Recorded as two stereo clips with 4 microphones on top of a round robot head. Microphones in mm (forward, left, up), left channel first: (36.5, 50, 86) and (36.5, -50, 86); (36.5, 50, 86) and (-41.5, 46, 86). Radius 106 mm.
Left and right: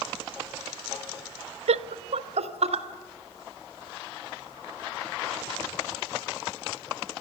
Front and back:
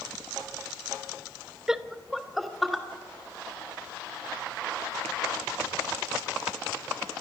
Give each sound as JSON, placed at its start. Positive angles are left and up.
{"t": 1.7, "sound": "laughter", "azimuth_deg": -95, "distance_m": 0.5}